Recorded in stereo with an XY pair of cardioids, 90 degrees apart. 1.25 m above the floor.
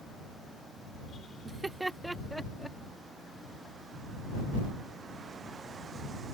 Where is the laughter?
30° right; by 2.8 s 5° left.